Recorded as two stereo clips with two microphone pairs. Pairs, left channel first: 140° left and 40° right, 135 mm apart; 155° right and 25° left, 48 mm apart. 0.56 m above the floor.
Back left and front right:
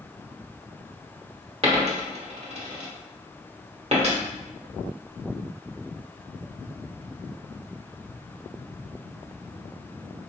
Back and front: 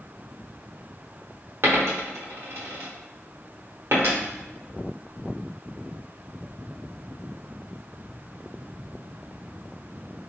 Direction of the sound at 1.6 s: 5° right.